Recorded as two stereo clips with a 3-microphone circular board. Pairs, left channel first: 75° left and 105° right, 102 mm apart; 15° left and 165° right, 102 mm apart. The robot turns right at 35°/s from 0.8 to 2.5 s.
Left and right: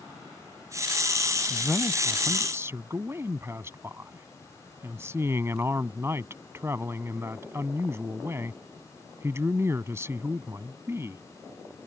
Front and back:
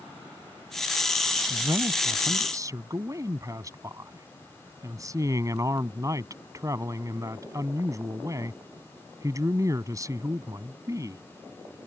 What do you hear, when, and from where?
1.5 s a man speaking: 175° left; by 11.2 s 150° right